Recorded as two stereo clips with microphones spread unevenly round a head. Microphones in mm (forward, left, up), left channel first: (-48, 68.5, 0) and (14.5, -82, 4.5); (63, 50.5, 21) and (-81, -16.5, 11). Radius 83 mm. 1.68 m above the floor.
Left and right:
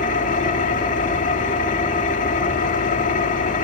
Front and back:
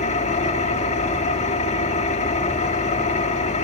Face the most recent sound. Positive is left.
turn(degrees=65)